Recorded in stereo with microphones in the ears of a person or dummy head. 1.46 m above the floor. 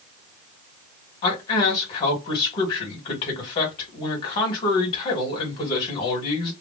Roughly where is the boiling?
No boiling in this recording.